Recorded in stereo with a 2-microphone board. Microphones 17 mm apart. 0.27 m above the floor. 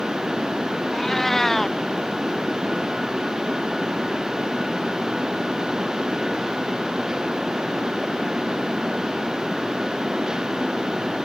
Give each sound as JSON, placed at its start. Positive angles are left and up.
{"t": 0.9, "sound": "a cat meowing", "side_deg": 30}